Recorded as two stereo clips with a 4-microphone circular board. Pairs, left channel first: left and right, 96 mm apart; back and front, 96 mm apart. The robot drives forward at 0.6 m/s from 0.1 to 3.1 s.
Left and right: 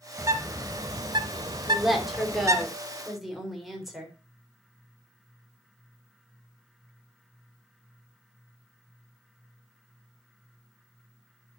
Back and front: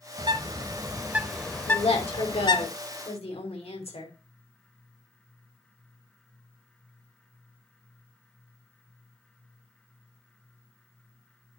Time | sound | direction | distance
0.2 | a bird | 35° right | 1.0 m
1.7 | a woman speaking | straight behind | 2.5 m